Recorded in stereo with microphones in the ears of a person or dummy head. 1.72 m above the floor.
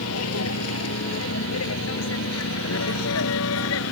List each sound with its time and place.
0.0 s a vehicle: 85° left; by 3.9 s 80° left